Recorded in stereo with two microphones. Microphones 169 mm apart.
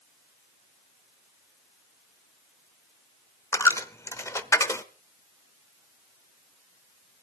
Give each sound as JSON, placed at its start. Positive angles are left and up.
{"t": 3.5, "sound": "a dropped coin", "side_deg": 15, "distance_m": 1.0}